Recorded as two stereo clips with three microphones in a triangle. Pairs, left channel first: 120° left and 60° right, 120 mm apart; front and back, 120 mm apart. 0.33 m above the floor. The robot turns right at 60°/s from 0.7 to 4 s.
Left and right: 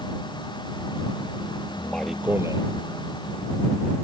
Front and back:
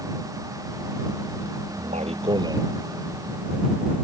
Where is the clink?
I don't hear a clink.